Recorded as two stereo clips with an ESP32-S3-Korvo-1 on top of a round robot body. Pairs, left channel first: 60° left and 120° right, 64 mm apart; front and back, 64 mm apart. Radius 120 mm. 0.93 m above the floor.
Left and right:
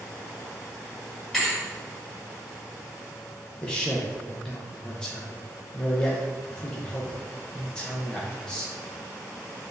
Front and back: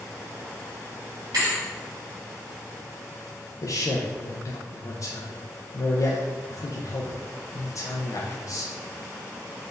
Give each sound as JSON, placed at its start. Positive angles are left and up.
{"t": 1.3, "sound": "a thud", "azimuth_deg": 150, "distance_m": 1.7}
{"t": 3.6, "sound": "a man speaking", "azimuth_deg": -15, "distance_m": 0.7}